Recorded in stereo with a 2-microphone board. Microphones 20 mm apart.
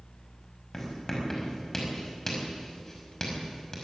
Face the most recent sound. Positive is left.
turn(degrees=20)  # may be behind; listen again after turning